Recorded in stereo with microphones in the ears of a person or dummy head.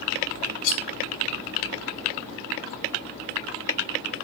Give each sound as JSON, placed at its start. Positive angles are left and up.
{"t": 0.6, "sound": "cutlery clinking", "side_deg": 75, "distance_m": 1.1}